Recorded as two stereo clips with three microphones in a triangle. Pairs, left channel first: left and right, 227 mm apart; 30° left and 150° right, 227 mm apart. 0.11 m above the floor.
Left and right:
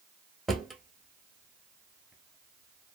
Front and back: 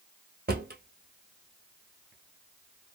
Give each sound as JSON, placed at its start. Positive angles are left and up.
{"t": 0.5, "sound": "a drawer", "azimuth_deg": 180, "distance_m": 0.8}